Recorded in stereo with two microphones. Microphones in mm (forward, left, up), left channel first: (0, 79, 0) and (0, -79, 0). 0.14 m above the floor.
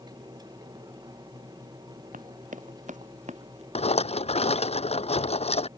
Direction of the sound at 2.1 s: 55° right (ahead or behind).